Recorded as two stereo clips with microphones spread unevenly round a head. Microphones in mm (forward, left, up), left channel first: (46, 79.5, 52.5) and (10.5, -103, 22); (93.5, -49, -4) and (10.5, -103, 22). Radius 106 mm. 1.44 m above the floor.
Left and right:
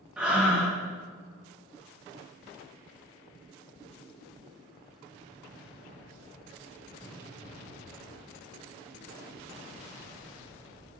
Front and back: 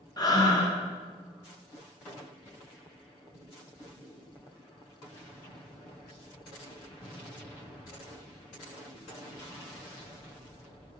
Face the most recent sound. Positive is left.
turn(degrees=-15)